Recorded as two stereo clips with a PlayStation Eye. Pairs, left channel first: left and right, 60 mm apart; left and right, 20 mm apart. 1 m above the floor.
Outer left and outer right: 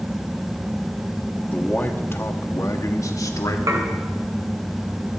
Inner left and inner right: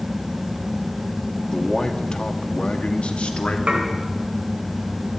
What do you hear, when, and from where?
1.5 s a man speaking: 25° left (ahead or behind), 1.6 m; by 3.6 s 80° left, 1.8 m
3.7 s dishes clattering: 80° right, 3 m